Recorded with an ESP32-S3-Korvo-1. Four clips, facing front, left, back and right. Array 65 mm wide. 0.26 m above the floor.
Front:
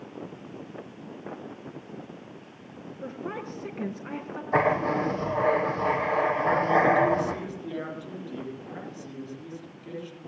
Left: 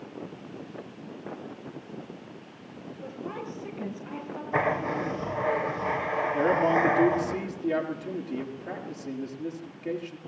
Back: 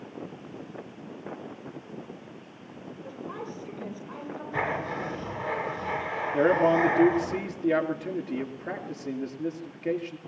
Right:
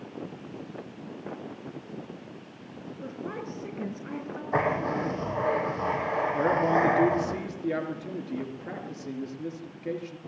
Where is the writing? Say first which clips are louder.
Even, front 7 dB; 30° right, 5 m.